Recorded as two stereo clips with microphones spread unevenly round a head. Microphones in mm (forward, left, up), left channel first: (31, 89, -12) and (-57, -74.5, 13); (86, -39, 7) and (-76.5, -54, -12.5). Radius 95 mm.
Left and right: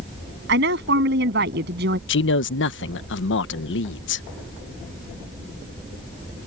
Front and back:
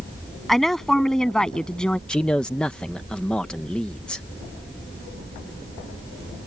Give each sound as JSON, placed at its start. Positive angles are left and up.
{"t": 0.5, "sound": "a woman speaking", "azimuth_deg": -80}
{"t": 2.1, "sound": "a man speaking", "azimuth_deg": 90}